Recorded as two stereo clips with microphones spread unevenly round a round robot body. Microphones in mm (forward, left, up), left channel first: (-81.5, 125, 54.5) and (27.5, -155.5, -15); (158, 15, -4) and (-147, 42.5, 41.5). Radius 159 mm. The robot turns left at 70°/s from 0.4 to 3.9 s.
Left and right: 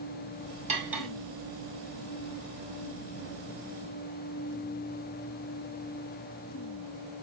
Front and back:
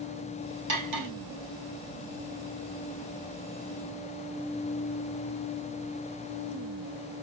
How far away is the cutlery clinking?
About 2.5 m.